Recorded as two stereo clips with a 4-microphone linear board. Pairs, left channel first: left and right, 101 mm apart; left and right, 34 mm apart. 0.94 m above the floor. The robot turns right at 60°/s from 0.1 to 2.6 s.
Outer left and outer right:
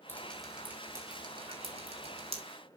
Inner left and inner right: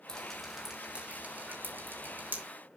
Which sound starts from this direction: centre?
Dripping, at 0.1 s.